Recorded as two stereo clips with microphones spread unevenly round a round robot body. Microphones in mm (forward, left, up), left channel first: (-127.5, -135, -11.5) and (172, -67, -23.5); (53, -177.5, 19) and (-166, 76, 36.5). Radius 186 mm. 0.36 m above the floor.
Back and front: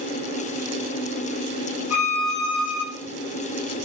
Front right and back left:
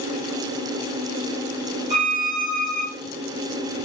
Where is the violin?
160° right, 1.0 m.